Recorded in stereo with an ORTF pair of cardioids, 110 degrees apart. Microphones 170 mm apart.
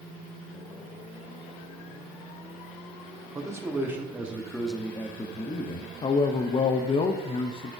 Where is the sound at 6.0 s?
35° left, 0.8 m.